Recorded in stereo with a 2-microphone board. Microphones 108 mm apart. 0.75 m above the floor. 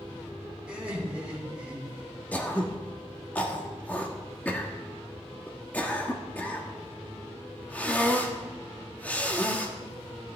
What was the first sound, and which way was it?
Laughter, 10° right (ahead or behind).